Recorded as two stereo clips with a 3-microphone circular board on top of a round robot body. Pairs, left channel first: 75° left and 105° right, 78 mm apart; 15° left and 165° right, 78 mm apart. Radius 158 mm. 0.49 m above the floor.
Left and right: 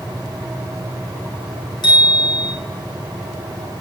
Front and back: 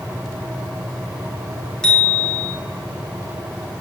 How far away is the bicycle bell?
About 5 m.